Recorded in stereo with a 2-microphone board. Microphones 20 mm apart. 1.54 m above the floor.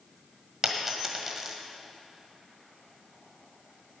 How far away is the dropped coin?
About 1.5 m.